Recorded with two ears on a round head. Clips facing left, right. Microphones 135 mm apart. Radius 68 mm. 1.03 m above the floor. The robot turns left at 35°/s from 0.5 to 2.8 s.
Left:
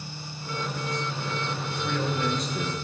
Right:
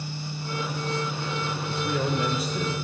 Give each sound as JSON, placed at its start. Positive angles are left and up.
{"t": 1.7, "sound": "a man speaking", "azimuth_deg": -150, "distance_m": 0.8}